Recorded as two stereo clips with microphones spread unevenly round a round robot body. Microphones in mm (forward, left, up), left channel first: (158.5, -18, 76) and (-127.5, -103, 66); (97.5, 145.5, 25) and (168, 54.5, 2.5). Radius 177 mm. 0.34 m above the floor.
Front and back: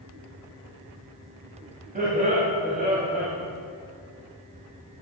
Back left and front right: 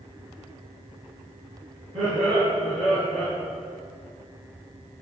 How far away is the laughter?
About 2.5 m.